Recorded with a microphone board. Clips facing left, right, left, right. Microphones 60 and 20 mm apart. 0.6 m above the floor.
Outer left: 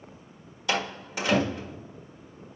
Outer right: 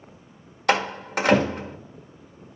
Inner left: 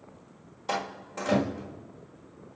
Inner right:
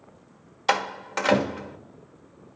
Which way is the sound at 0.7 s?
60° right (ahead or behind).